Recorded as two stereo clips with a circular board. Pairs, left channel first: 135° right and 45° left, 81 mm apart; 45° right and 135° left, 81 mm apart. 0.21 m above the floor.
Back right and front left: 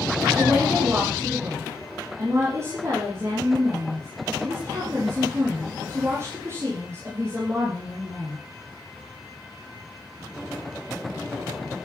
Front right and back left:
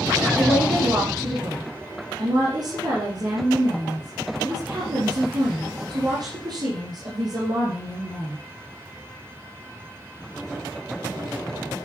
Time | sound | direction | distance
0.4 | a woman speaking | 100° left | 7.5 m